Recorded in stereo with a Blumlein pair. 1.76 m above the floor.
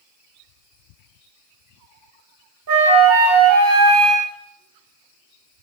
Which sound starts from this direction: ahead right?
A flute, at 2.7 s.